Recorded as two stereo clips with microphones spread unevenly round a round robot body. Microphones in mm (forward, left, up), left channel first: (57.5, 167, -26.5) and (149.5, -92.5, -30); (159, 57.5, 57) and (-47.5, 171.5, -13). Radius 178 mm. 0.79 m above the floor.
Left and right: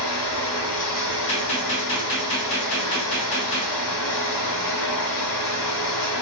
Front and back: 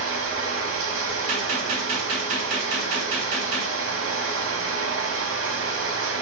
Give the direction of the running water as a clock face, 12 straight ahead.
8 o'clock.